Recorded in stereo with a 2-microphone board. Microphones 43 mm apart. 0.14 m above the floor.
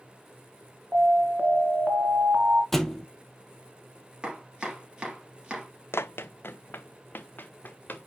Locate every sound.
0.9 s an alarm: 40° right (ahead or behind), 2 m
2.7 s a thud: 5° left (ahead or behind), 1.3 m
4.2 s chopping: 20° right (ahead or behind), 4 m
5.9 s running footsteps: 80° left, 0.5 m; by 8.1 s 45° left (ahead or behind), 1.9 m